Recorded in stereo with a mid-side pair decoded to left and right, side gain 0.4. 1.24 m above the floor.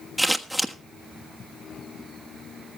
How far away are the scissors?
About 1.3 m.